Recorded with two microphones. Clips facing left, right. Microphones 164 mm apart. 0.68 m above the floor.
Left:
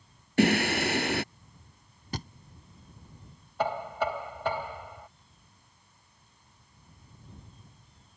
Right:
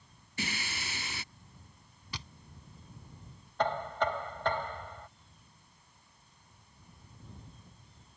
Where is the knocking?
10° left (ahead or behind).